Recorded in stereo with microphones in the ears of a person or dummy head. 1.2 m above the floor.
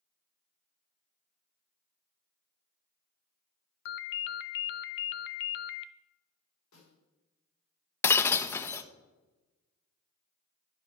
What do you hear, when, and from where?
3.9 s a ringtone: 70° left (ahead or behind), 0.5 m
6.7 s a snare drum: 85° left, 4 m
8.0 s breaking glass: 15° left (ahead or behind), 0.5 m